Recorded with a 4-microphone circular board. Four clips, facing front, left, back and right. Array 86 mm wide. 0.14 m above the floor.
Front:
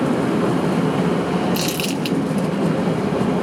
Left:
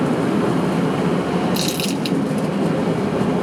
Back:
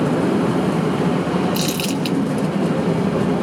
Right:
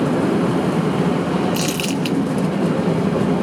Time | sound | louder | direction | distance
1.5 | crumpling | right 1 dB, back 1 dB | 70° right | 1.5 m